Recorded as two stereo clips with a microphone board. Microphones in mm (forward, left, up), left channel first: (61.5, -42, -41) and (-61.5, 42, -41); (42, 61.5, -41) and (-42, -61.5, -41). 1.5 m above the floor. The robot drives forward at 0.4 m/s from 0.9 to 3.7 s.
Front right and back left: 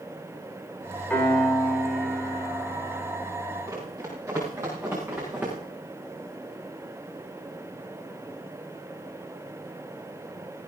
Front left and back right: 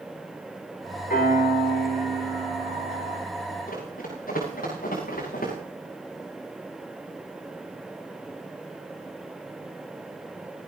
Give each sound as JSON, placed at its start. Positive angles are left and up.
{"t": 1.1, "sound": "a piano", "azimuth_deg": 45, "distance_m": 4.5}
{"t": 3.7, "sound": "running footsteps", "azimuth_deg": 80, "distance_m": 10.0}